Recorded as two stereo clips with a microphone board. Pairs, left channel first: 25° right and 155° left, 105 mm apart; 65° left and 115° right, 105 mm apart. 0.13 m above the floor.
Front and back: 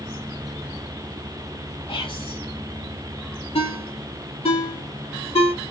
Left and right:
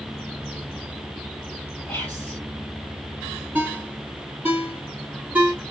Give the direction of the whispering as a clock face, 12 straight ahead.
12 o'clock.